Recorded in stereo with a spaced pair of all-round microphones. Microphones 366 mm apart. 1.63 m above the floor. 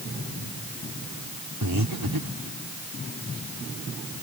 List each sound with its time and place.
1.6 s breathing: 65° right (ahead or behind)